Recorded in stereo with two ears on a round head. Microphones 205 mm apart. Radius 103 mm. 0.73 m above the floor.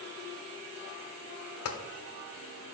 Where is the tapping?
70° left (ahead or behind), 1.1 m.